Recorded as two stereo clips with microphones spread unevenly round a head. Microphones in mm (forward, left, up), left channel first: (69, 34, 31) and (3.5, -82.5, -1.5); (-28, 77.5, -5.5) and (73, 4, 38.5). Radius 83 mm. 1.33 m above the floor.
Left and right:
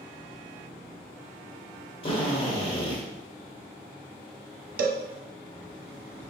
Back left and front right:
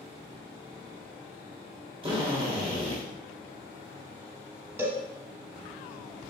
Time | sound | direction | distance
2.0 | a drill | 10° left | 2.5 m
4.8 | a cowbell | 100° right | 0.9 m